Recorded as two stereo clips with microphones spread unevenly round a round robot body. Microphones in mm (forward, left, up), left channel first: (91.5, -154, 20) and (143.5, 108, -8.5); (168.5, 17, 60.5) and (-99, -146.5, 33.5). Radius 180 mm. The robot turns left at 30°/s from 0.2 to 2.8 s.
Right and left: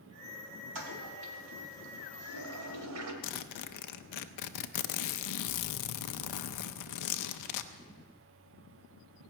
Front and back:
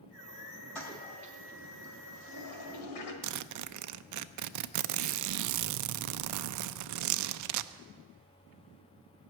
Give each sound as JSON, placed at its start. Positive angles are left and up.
{"t": 0.8, "sound": "a toilet flushing", "azimuth_deg": 115, "distance_m": 2.0}
{"t": 3.2, "sound": "a zipper", "azimuth_deg": -120, "distance_m": 0.6}